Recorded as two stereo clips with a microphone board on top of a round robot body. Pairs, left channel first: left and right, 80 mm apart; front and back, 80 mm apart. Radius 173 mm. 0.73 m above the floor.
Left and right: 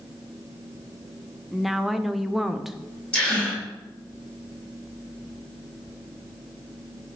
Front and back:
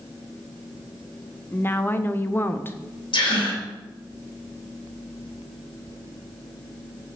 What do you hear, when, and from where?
1.5 s a woman speaking: 5° right, 0.8 m
3.1 s a gasp: 10° left, 3 m